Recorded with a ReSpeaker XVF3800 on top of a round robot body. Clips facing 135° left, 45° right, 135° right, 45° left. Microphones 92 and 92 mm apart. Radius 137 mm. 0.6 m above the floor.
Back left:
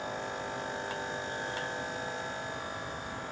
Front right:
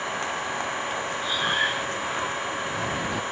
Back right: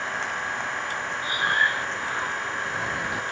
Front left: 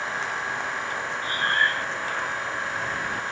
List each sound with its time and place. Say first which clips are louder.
0.0 s an engine running: front right 7 dB, even; 45° right
1.2 s breathing: front right 9 dB, even; 55° right